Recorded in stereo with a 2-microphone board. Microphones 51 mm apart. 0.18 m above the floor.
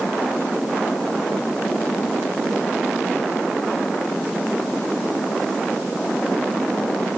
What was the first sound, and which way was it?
Only background noise.